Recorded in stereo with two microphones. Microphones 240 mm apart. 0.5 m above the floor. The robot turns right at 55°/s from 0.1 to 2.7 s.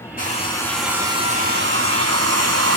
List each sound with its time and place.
0.2 s a hair dryer: 145° left, 4.5 m; by 2.8 s 75° right, 4.5 m